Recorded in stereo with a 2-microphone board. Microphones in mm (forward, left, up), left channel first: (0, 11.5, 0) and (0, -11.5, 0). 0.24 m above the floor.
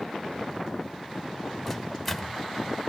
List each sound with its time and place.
1.7 s a microwave: 5° left (ahead or behind), 1.2 m